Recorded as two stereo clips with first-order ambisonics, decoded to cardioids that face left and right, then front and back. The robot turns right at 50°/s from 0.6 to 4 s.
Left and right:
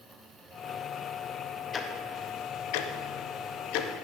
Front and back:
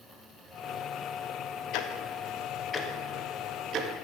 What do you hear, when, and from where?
1.7 s ticking: 25° left, 1.0 m; by 3.9 s 135° left, 1.0 m